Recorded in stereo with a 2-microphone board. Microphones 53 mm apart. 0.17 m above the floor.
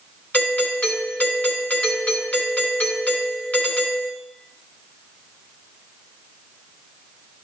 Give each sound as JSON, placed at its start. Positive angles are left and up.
{"t": 0.3, "sound": "a doorbell", "side_deg": 30, "distance_m": 2.0}